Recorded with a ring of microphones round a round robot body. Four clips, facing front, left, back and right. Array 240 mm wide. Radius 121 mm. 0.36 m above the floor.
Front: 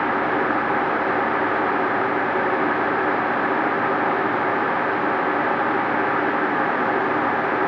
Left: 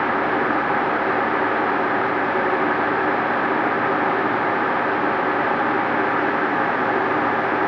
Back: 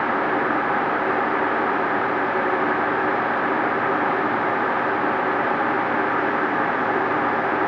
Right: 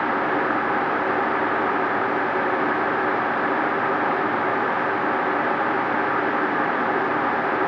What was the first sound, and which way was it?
Only background noise.